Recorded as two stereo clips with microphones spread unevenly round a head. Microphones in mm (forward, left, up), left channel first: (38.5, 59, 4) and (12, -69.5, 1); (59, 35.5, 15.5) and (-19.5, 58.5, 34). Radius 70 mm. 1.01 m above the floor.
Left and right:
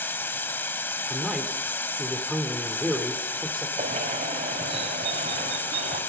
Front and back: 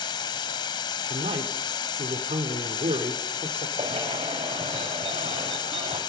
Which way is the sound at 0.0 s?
10° left.